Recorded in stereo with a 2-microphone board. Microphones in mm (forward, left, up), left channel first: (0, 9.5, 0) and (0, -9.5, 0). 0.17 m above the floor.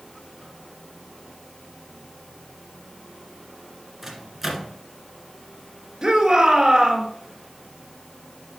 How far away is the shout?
About 3 m.